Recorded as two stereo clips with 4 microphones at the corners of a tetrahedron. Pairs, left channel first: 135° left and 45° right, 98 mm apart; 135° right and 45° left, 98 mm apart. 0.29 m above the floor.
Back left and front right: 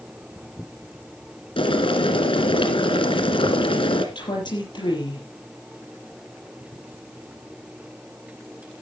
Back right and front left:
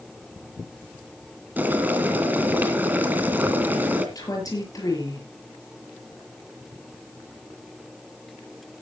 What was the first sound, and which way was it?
Boiling, 115° left.